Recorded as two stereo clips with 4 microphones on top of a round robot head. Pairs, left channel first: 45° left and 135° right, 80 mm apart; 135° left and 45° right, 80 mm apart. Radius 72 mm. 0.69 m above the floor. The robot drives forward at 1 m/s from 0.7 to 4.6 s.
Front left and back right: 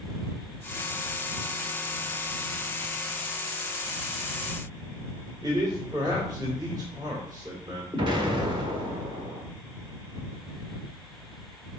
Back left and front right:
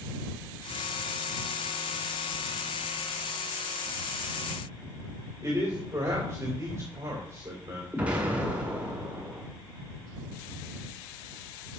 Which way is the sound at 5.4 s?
95° right.